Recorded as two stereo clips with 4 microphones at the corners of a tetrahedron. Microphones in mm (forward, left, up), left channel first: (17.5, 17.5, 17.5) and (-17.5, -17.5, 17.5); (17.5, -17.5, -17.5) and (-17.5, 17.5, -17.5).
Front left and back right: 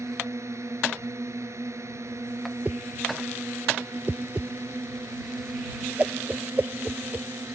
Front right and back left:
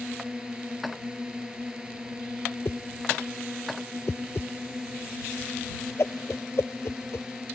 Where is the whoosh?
80° right.